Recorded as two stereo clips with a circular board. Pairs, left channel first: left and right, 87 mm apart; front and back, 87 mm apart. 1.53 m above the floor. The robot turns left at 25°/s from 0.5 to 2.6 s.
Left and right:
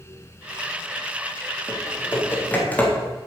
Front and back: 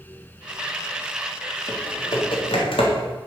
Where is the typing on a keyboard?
40° left, 3.5 m; by 2.9 s 15° left, 3.5 m.